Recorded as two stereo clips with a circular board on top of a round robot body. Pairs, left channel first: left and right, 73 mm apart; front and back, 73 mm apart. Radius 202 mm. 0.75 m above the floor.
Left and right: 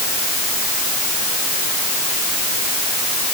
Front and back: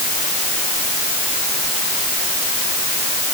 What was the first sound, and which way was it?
Only background noise.